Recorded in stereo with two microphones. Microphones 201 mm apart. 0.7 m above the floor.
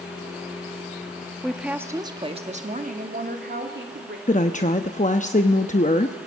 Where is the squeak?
No squeak in this recording.